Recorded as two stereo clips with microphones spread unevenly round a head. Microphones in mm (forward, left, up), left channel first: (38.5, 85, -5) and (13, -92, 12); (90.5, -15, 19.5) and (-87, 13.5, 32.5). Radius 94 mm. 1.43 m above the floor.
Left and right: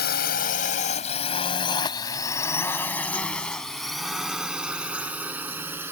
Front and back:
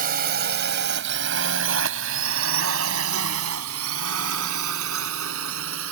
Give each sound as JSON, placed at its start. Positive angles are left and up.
{"t": 0.0, "sound": "a drone", "azimuth_deg": 125}